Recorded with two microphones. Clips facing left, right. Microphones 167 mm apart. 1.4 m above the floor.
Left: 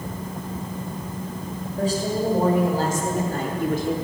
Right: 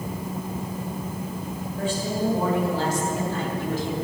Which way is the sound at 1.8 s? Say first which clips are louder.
Left 3 dB; 40° left (ahead or behind).